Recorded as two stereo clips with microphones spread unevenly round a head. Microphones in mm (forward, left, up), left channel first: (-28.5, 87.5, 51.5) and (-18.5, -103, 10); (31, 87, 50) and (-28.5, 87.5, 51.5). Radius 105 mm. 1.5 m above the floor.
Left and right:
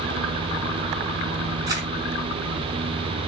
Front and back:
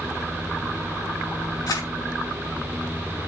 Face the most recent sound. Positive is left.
turn(degrees=-15)